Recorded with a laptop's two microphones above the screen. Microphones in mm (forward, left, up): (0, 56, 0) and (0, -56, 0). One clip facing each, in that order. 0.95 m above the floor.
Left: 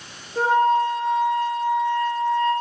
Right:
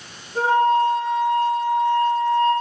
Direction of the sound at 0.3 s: 65° right (ahead or behind).